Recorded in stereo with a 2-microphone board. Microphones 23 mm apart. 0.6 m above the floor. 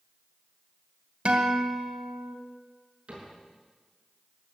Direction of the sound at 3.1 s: 50° right (ahead or behind).